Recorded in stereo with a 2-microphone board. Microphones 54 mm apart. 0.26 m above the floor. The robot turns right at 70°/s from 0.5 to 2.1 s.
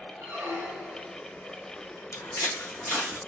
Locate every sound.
0.2 s a squeak: 55° right, 1.2 m; by 1.2 s 10° right, 1.2 m
2.1 s footsteps: 55° left (ahead or behind), 0.8 m; by 3.2 s 5° right (ahead or behind), 0.8 m